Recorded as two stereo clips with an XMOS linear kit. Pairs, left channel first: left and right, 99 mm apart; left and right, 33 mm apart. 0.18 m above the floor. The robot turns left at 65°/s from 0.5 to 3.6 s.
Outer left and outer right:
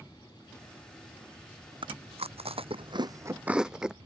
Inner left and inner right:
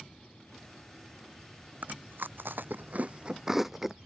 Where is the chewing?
55° right (ahead or behind); by 4.0 s 5° right (ahead or behind).